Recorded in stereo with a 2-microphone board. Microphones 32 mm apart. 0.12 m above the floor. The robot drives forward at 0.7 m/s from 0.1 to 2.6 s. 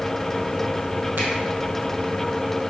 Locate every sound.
1.2 s a finger snap: 70° right (ahead or behind), 3.5 m